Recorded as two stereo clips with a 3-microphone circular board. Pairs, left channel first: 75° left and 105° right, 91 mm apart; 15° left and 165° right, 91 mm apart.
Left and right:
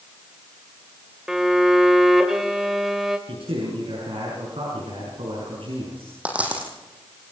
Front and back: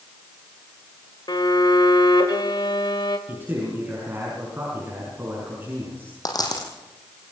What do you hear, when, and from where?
1.3 s a violin: 20° right, 2 m
3.3 s a man speaking: 100° right, 6.5 m
6.2 s a dropped coin: 30° right, 4.5 m